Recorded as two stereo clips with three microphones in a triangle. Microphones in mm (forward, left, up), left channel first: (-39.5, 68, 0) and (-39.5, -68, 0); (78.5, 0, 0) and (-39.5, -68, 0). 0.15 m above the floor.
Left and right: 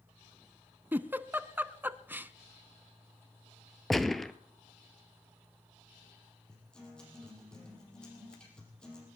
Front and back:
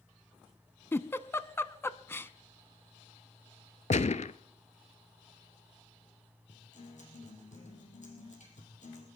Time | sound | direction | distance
0.9 | a giggle | 30° right | 0.5 m
3.9 | a gunshot | straight ahead | 0.5 m
6.5 | a guitar | 5° left | 4 m